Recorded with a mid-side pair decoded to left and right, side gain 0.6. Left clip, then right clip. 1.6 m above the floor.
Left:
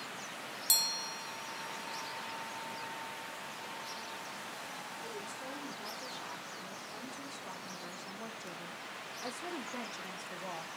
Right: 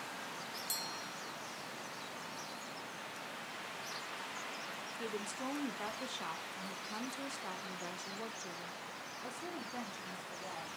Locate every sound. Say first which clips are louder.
5.0 s a woman speaking: right 1 dB; 70° right, 2.5 m; by 10.7 s 25° left, 2 m